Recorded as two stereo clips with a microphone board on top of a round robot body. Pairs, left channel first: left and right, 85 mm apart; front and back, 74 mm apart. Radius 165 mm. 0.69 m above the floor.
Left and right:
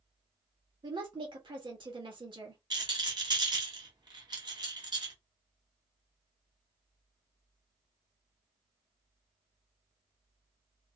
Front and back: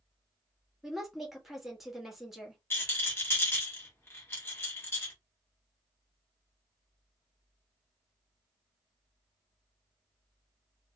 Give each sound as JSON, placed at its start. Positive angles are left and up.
{"t": 0.8, "sound": "a woman speaking", "azimuth_deg": -95, "distance_m": 1.6}
{"t": 2.7, "sound": "a rattle", "azimuth_deg": -60, "distance_m": 1.7}